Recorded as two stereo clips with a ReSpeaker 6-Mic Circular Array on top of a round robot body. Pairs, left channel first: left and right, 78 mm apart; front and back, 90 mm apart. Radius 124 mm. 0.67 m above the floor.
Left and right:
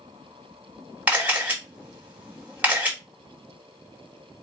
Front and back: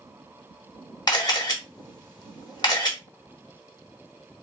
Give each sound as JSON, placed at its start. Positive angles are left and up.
{"t": 1.1, "sound": "a camera shutter", "azimuth_deg": -20, "distance_m": 1.3}